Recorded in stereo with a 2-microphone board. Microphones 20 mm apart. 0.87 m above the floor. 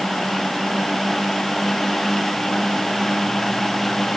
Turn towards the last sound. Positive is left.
No sound to turn to.